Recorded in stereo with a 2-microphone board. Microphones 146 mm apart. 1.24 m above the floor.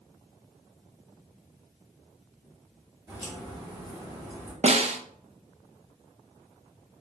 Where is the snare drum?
45° right (ahead or behind), 0.5 m.